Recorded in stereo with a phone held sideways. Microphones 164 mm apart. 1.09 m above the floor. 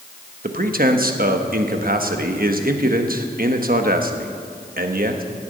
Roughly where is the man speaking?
Right.